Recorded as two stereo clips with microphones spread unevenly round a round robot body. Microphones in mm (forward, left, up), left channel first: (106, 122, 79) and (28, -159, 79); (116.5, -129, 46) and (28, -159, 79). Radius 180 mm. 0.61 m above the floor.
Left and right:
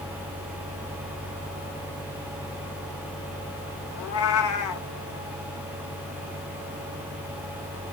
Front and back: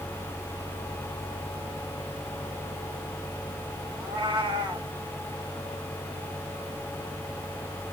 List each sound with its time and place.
4.0 s a cat meowing: 115° left, 0.9 m